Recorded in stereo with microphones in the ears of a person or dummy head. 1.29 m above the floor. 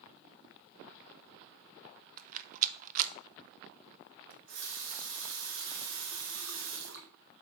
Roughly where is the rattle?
Right.